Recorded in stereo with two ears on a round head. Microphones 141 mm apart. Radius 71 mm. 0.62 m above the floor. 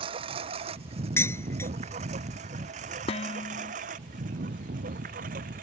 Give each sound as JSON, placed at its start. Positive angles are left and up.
{"t": 0.0, "sound": "a lawn mower", "side_deg": -35}
{"t": 1.2, "sound": "dishes clattering", "side_deg": 15}
{"t": 3.1, "sound": "dishes clattering", "side_deg": 35}